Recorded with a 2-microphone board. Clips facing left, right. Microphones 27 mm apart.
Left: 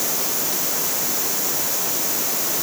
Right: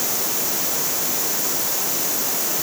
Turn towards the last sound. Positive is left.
No sound to turn to.